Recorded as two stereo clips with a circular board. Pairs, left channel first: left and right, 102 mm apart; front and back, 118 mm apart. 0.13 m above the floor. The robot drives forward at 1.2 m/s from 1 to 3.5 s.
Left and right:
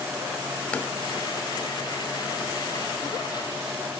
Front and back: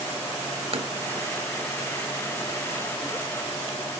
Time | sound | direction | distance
0.7 | tapping | 165° left | 0.8 m